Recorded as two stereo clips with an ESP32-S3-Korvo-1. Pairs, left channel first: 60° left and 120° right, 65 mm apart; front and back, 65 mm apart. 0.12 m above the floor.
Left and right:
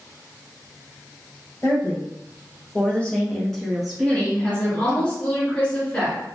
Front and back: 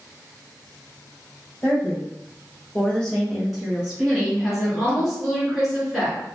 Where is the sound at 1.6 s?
40° left, 1.5 m; by 5.0 s 155° right, 1.3 m.